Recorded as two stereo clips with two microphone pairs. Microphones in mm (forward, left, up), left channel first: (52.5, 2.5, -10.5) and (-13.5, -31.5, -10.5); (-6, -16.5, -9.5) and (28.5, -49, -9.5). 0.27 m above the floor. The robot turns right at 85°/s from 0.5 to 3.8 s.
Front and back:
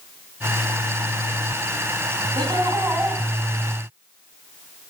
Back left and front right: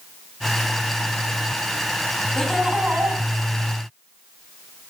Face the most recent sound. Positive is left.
turn(degrees=-15)